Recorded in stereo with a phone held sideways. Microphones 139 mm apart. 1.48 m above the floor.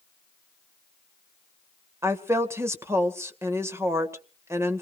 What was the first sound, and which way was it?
A woman speaking, 20° right (ahead or behind).